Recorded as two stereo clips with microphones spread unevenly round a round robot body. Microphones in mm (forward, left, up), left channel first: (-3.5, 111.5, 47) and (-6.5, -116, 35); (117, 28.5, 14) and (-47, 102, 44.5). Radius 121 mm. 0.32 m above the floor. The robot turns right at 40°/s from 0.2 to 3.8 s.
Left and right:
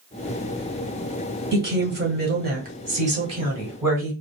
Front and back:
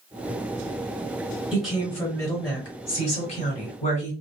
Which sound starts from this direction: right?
A woman speaking, at 1.5 s.